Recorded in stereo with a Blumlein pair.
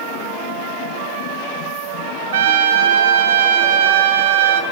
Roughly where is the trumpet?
Ahead right.